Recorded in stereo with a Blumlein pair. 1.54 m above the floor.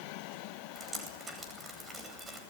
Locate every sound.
0.8 s dripping: 15° right, 9 m